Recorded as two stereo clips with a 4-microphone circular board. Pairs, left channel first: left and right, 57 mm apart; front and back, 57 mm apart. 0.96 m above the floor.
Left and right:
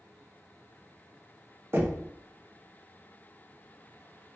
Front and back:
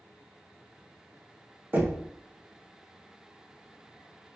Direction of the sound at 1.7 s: 130° right.